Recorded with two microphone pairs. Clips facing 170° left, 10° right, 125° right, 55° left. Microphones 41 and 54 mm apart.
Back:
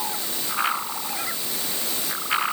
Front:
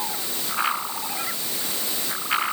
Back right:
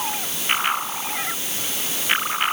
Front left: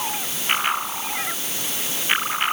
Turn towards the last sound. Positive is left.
No sound to turn to.